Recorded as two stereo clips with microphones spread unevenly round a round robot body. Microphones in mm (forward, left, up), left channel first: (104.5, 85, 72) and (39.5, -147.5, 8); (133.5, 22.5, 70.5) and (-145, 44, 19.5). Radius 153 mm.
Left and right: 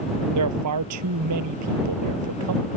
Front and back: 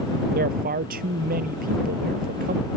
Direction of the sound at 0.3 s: 120° right.